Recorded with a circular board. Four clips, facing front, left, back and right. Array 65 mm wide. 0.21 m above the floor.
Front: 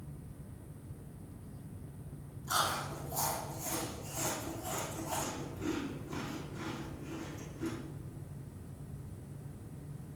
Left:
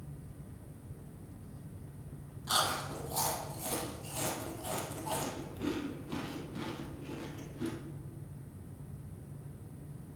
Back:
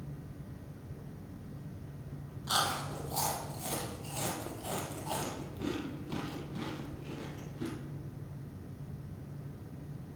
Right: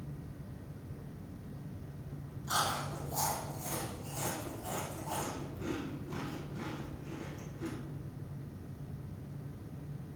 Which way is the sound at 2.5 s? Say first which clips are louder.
Left 1 dB, back 1 dB; 140° left.